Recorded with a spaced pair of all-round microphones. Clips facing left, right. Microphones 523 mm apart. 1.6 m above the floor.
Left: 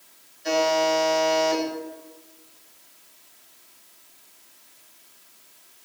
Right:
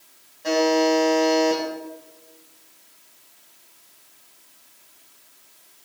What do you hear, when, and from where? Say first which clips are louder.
0.4 s a buzzer: right 5 dB; 80° right, 10 m